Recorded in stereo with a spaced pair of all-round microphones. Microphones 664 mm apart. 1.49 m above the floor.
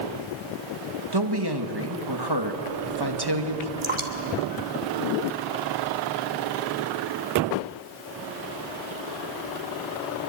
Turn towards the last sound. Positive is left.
turn(degrees=-45)  # may be behind; listen again after turning